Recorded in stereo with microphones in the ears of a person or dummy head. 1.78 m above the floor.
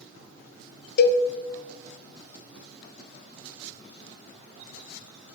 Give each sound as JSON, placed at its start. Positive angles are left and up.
{"t": 1.0, "sound": "a cowbell", "side_deg": 55, "distance_m": 0.5}